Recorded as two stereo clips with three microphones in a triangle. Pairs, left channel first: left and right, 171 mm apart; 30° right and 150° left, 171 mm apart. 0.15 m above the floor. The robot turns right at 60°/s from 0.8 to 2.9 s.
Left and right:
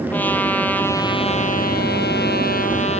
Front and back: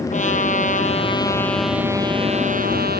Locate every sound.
0.1 s a trumpet: 10° left, 2.5 m; by 3.0 s 135° left, 2.5 m